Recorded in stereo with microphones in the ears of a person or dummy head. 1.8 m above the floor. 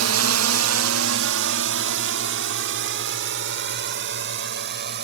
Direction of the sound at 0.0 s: 75° right (ahead or behind).